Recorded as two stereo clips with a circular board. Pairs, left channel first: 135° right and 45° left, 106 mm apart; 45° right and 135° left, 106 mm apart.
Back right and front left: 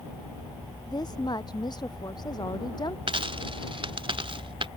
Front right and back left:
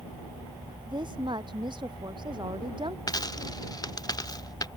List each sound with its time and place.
0.9 s a woman speaking: 175° left
3.1 s a dropped coin: 5° left